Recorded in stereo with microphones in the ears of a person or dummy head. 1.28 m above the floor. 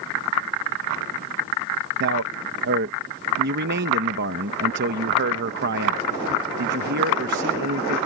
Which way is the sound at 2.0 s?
55° right (ahead or behind).